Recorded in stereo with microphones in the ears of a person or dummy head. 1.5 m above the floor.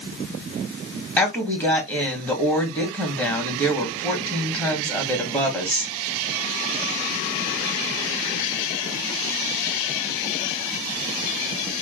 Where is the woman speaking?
15° left (ahead or behind), 3 m.